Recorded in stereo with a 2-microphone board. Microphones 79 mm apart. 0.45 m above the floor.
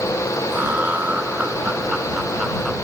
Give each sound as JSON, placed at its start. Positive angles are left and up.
{"t": 0.5, "sound": "laughter", "side_deg": -25}